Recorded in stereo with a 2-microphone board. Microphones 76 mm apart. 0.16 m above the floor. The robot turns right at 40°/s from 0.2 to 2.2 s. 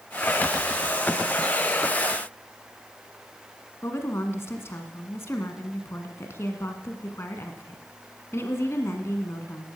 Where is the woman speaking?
35° left (ahead or behind), 1.8 m.